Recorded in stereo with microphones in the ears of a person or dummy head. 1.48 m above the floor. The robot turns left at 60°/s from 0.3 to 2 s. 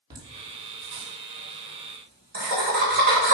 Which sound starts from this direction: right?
Laughter, at 0.1 s.